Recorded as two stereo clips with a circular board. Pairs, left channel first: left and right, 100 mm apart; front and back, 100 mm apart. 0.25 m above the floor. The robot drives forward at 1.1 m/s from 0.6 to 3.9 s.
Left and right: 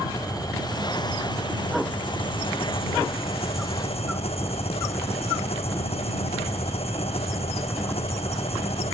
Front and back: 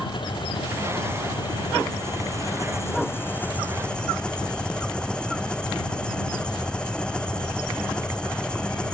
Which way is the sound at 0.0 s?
40° left.